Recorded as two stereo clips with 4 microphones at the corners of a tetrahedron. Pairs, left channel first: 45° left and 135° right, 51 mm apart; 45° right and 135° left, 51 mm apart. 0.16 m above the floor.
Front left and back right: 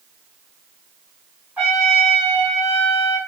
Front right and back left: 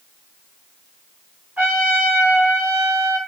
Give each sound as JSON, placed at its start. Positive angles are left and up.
{"t": 1.6, "sound": "a trumpet", "azimuth_deg": 180, "distance_m": 2.0}